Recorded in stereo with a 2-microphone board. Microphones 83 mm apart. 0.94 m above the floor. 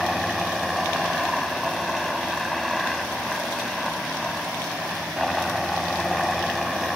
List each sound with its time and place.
0.0 s a helicopter: centre (ahead or behind)